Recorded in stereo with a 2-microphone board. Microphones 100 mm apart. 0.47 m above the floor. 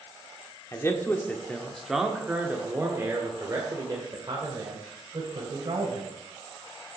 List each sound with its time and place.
0.7 s a man speaking: 25° left (ahead or behind), 1.2 m; by 6.1 s 45° right (ahead or behind), 3 m